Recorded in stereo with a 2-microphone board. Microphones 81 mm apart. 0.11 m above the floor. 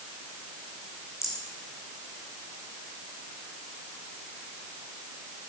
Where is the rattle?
35° left (ahead or behind), 5 m.